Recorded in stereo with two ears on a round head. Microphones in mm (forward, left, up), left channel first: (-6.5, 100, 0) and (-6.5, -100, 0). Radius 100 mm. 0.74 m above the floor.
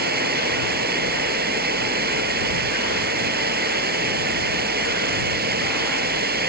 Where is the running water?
45° right (ahead or behind).